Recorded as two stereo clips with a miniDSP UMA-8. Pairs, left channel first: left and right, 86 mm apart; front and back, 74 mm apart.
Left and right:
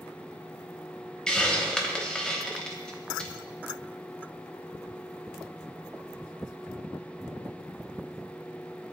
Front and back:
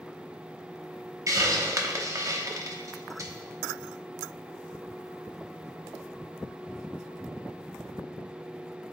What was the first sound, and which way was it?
A hiss, 165° left.